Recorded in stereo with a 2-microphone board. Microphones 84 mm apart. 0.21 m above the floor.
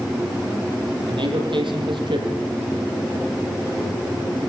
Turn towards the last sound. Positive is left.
turn(degrees=-75)  # may be behind; listen again after turning